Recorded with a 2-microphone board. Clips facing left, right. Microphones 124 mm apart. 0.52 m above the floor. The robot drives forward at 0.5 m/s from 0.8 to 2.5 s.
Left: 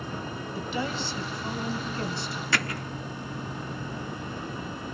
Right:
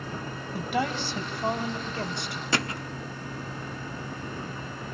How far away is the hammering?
About 1.0 m.